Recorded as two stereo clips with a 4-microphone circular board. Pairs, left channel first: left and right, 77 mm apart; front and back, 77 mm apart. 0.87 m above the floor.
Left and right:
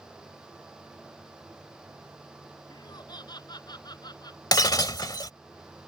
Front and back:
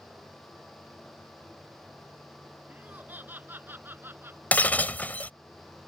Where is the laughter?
110° left; by 4.4 s 120° left.